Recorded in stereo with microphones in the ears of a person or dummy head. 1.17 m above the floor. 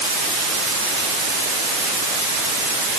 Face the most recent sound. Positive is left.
No sound to turn to.